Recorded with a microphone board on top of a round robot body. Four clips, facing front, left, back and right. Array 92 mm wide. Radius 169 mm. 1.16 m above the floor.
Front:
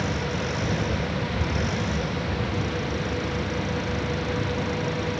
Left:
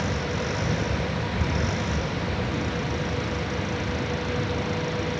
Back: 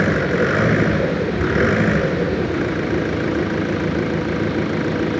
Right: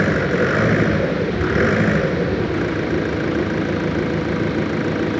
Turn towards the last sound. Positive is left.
turn(degrees=-135)